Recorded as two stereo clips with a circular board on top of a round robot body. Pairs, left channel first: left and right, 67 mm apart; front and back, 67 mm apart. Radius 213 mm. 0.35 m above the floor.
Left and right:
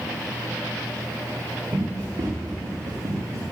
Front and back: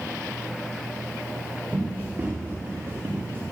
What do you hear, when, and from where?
1.7 s running footsteps: 115° right, 6.5 m; by 3.4 s 125° right, 5.5 m